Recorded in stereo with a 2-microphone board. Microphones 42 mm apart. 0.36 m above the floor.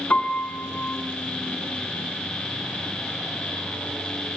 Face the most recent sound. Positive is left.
turn(degrees=40)  # may be behind; listen again after turning